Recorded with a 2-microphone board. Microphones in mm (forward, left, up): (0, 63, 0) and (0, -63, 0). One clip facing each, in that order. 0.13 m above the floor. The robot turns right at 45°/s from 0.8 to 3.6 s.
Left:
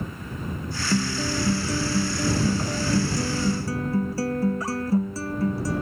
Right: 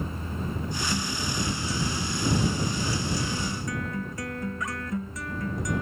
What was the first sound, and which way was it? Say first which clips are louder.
A guitar: left 10 dB; 25° left.